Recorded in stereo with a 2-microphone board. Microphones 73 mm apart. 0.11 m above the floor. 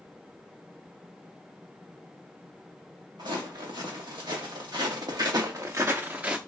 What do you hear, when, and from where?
3.2 s footsteps: 85° right, 2 m; by 6.4 s 15° right (ahead or behind), 0.8 m